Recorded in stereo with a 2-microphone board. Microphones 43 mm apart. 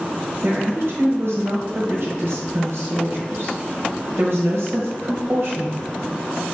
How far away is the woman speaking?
About 1.2 m.